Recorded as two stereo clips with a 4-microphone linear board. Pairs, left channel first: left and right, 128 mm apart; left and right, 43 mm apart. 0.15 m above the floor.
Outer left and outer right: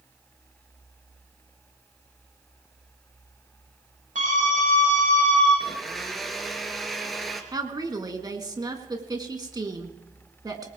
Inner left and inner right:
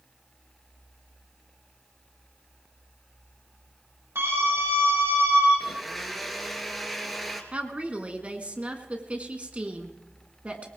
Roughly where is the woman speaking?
Right.